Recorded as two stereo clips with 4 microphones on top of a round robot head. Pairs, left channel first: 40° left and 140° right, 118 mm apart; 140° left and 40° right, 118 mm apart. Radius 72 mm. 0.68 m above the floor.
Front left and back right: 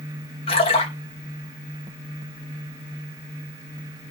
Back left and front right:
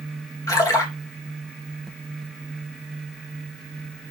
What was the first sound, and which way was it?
A splash, 80° left.